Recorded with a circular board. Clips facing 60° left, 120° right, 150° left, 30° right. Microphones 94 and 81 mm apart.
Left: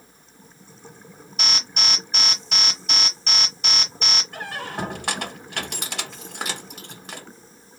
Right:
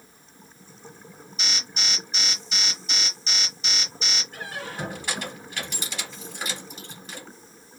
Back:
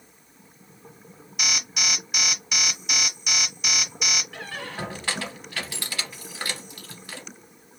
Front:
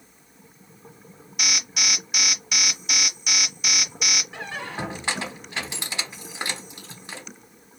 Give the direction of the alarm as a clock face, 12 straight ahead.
10 o'clock.